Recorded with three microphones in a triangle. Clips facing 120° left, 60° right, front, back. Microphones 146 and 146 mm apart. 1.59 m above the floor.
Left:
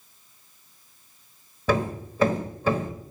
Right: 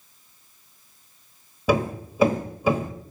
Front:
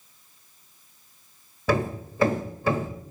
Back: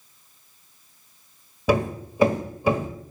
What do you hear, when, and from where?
1.7 s hammering: 125° right, 1.4 m